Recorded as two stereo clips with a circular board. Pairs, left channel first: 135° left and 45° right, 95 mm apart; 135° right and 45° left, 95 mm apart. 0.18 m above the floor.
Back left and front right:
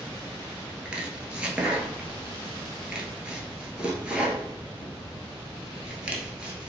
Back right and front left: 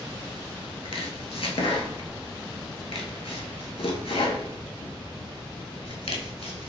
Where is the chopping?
125° right, 0.6 m.